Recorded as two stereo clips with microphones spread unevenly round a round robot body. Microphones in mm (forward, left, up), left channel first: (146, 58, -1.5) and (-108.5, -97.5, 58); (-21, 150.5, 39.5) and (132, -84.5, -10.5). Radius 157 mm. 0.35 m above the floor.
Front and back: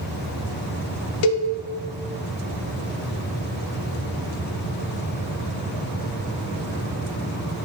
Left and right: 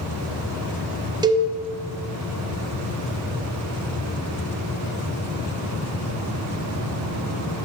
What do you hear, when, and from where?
1.2 s a cowbell: 20° left, 0.6 m